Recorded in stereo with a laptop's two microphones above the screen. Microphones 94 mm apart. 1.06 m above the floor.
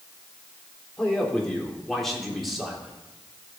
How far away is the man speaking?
About 3.5 m.